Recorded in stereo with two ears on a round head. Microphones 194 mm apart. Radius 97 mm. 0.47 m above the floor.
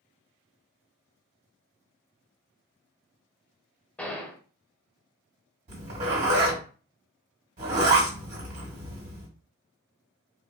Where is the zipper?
35° right (ahead or behind), 1.7 m.